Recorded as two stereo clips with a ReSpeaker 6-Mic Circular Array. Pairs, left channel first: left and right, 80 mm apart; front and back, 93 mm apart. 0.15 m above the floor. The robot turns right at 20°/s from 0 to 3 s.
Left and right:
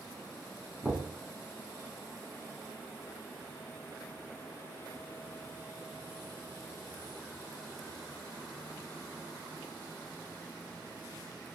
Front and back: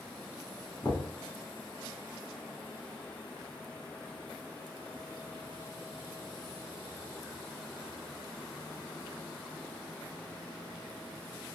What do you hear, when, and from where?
0.8 s knocking: 5° right, 0.8 m; by 1.1 s straight ahead, 0.8 m